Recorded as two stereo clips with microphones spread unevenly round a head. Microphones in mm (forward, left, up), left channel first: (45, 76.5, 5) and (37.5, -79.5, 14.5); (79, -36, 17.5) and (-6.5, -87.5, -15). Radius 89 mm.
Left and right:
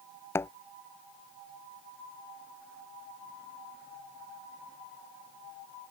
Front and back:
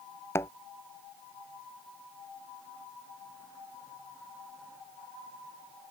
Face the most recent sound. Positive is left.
turn(degrees=15)